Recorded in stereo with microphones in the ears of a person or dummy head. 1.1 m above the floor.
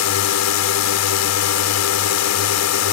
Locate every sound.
0.0 s a drone: 70° left (ahead or behind)